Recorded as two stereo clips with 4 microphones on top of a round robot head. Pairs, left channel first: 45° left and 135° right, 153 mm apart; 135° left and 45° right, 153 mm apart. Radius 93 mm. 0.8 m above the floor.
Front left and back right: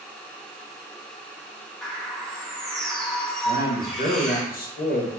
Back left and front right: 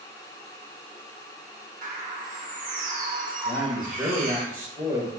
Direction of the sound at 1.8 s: 40° right.